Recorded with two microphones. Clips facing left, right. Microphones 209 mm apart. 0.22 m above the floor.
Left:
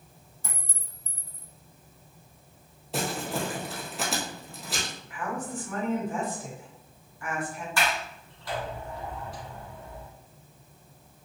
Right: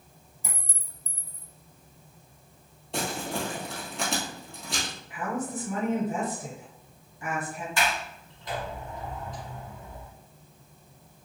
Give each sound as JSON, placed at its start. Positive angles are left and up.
{"t": 0.4, "sound": "a clink", "side_deg": -15, "distance_m": 0.6}
{"t": 2.9, "sound": "crumpling", "side_deg": 5, "distance_m": 1.2}
{"t": 5.1, "sound": "a woman speaking", "side_deg": -25, "distance_m": 1.7}
{"t": 7.8, "sound": "a sliding door", "side_deg": -20, "distance_m": 1.2}